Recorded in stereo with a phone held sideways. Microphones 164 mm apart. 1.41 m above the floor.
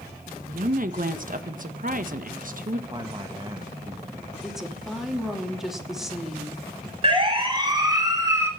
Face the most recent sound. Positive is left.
turn(degrees=-15)  # may be behind; listen again after turning